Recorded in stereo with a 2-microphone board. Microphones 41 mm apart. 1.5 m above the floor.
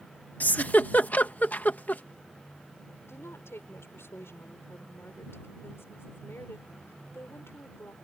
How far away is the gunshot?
I don't hear a gunshot.